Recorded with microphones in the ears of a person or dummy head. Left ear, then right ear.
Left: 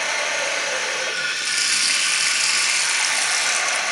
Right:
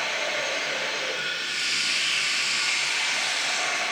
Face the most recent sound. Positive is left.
turn(degrees=50)  # may be behind; listen again after turning